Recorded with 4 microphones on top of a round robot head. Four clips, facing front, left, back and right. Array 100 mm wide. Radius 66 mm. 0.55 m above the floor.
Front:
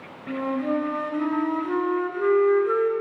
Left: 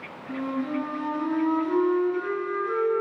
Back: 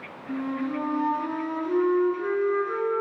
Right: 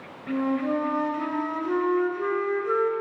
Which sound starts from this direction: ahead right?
A flute, at 0.3 s.